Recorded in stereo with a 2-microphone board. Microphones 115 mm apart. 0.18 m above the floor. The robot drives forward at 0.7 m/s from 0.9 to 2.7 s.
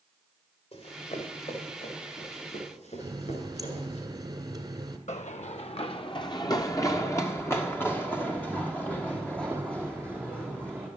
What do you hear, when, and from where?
0.7 s running footsteps: 65° left (ahead or behind), 4 m; by 4.0 s 85° left, 7.5 m
3.0 s a running tap: 30° right (ahead or behind), 1.6 m
5.1 s running footsteps: 80° left, 0.9 m; by 10.9 s 10° left (ahead or behind), 5 m